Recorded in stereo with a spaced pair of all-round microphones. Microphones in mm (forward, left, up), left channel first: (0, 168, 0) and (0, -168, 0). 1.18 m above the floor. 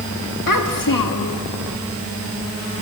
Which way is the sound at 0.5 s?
75° left (ahead or behind).